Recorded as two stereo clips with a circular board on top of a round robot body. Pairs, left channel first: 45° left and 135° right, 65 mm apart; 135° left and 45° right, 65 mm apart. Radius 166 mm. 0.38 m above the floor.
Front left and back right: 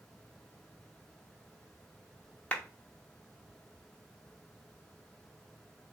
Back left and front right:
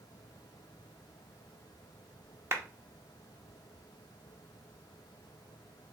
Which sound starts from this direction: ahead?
A clap, at 2.5 s.